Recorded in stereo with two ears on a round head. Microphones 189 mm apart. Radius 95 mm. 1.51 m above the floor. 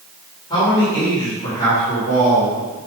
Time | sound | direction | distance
0.5 | a man speaking | 20° left (ahead or behind) | 3.5 m